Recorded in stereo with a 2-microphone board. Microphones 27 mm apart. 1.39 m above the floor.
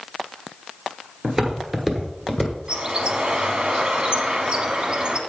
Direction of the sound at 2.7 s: 35° right (ahead or behind).